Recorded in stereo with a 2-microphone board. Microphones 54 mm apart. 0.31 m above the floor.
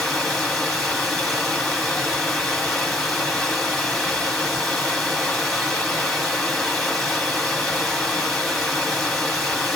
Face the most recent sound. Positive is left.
turn(degrees=10)  # may be behind; listen again after turning